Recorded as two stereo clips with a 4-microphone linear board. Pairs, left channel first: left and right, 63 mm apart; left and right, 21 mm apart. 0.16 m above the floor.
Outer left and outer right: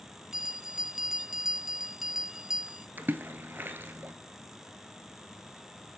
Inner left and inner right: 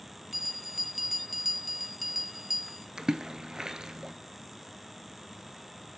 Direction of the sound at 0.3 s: 5° right (ahead or behind).